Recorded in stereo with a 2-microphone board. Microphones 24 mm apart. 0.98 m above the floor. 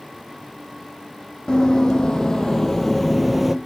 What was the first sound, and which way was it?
Running footsteps, 30° left (ahead or behind).